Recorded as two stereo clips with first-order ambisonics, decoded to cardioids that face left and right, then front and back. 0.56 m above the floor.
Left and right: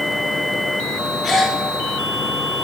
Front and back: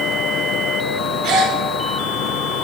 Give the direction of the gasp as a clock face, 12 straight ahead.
7 o'clock.